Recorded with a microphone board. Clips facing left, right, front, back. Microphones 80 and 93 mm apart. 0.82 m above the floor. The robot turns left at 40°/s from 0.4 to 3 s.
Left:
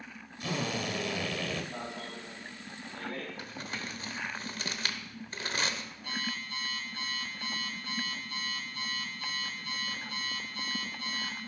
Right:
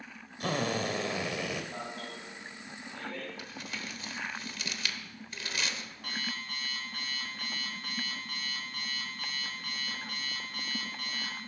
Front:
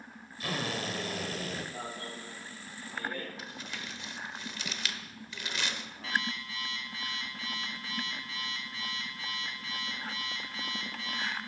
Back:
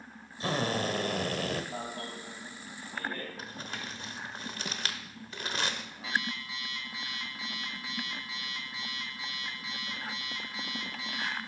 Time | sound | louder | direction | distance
0.4 | a drill | right 3 dB, back 5 dB | 120° right | 1.1 m
1.7 | an alarm | even, back 2 dB | 175° right | 3.5 m
3.4 | crumpling | left 2 dB, back 2 dB | 135° left | 0.9 m
6.0 | an alarm clock | left 1 dB, even | 105° right | 3.5 m